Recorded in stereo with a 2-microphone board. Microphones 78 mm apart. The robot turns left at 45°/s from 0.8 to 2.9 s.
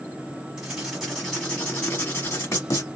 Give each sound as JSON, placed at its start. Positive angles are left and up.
{"t": 0.6, "sound": "writing", "azimuth_deg": -165, "distance_m": 1.4}